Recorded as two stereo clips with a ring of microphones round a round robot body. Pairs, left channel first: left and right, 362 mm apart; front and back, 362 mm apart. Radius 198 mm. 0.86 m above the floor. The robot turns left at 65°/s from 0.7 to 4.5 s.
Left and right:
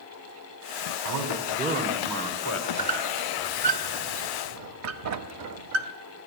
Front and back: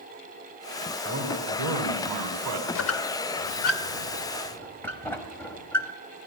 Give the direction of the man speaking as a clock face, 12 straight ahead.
4 o'clock.